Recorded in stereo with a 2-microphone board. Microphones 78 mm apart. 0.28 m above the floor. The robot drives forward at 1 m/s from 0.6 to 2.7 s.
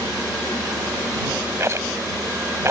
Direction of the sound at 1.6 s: 40° right (ahead or behind).